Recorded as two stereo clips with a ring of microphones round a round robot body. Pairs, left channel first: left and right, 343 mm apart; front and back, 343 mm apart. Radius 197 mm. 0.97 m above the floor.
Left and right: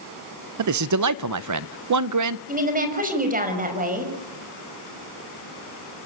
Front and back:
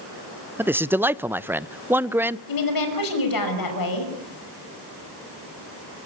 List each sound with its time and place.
0.6 s a man speaking: 95° right, 0.7 m
2.5 s a woman speaking: 25° right, 5.5 m